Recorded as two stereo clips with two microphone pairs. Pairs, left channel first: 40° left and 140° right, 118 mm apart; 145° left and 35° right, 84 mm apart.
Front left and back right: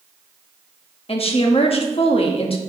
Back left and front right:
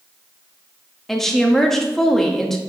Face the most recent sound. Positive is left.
turn(degrees=60)